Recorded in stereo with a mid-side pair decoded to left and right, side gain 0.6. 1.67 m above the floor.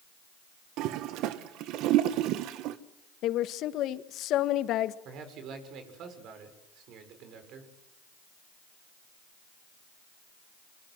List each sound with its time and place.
0.8 s a toilet flushing: 70° right, 1.5 m
3.2 s a woman speaking: 60° left, 1.6 m
5.0 s a man speaking: 60° right, 6.5 m